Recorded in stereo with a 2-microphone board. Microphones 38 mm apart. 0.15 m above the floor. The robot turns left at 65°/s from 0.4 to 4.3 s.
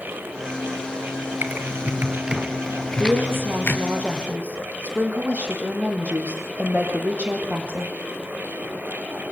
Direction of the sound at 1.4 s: 60° right (ahead or behind).